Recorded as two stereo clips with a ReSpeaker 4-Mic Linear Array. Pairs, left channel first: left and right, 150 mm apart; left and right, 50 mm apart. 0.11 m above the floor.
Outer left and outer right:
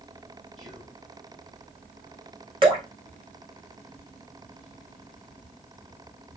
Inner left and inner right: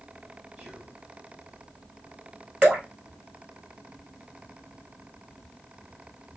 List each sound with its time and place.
0.6 s whispering: 25° right (ahead or behind), 2.5 m
2.6 s dripping: 35° right (ahead or behind), 2.5 m